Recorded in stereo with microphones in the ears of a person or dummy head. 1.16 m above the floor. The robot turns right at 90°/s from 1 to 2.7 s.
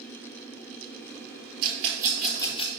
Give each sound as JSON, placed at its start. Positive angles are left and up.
{"t": 1.6, "sound": "a rattle", "side_deg": -55, "distance_m": 3.5}